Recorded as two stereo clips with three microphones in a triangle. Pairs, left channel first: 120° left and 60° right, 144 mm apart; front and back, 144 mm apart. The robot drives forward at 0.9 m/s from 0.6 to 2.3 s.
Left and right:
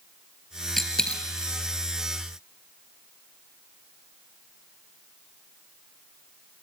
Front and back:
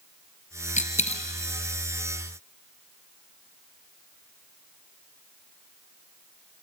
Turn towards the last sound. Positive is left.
turn(degrees=70)